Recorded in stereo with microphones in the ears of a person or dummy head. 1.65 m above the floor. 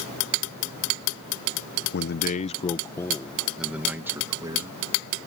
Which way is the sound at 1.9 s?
55° left (ahead or behind).